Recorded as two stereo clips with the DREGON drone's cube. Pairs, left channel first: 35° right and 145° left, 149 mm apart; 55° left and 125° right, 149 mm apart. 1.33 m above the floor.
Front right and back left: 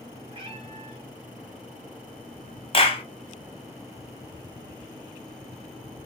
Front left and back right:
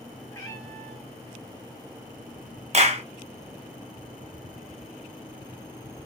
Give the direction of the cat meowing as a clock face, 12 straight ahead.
8 o'clock.